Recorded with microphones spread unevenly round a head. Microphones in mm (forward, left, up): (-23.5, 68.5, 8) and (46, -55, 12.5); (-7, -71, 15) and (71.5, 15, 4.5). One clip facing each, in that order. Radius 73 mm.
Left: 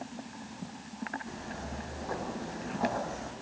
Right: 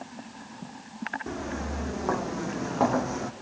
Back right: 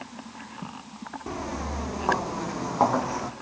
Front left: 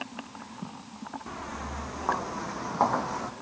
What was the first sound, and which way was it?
Footsteps, 80° right.